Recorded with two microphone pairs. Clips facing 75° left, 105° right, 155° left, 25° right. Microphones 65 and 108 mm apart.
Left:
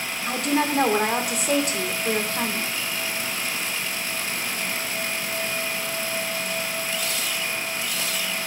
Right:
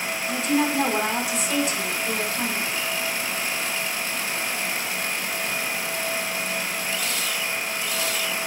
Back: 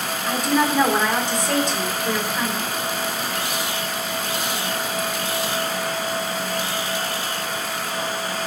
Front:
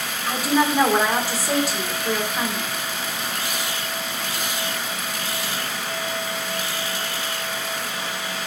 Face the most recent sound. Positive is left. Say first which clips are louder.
# even, even
turn(degrees=55)